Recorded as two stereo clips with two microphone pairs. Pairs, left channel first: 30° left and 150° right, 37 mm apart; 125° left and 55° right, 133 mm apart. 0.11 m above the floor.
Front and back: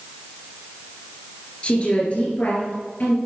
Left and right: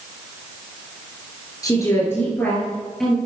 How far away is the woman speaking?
About 2.5 m.